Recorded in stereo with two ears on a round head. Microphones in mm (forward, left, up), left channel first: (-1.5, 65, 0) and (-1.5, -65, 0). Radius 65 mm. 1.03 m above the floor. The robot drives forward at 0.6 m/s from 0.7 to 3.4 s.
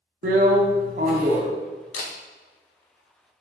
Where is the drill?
60° right (ahead or behind), 0.8 m; by 1.5 s 45° right (ahead or behind), 1.0 m.